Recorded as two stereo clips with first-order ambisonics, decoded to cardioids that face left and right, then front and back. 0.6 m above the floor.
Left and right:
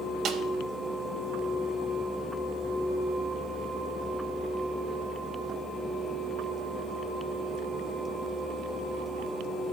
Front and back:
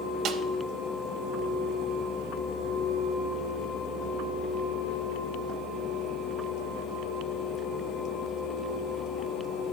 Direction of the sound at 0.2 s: 140° right.